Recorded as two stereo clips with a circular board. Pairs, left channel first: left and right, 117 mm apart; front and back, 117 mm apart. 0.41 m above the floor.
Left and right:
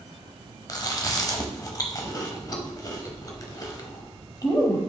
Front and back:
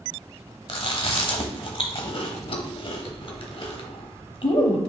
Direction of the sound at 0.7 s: 35° left.